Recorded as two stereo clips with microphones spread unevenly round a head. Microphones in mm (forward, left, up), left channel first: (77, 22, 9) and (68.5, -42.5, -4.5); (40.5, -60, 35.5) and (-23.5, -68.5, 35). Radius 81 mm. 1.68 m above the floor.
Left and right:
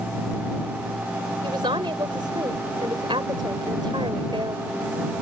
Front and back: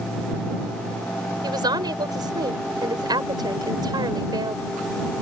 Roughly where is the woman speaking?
Behind right.